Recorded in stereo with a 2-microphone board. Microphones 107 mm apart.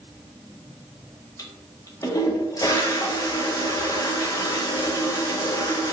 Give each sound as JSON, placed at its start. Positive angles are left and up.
{"t": 1.4, "sound": "a toilet flushing", "side_deg": 30, "distance_m": 0.7}